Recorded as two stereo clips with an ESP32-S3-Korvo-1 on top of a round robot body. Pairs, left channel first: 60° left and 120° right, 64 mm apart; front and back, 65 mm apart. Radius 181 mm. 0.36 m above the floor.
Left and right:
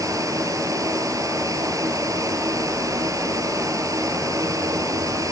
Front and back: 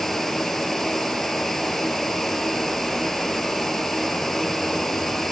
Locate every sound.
0.0 s running water: 85° right, 4.5 m